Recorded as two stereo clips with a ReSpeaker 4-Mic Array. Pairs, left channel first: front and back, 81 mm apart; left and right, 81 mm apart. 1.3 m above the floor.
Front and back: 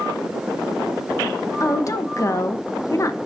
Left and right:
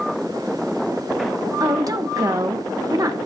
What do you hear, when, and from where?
1.6 s a woman speaking: 45° right, 0.9 m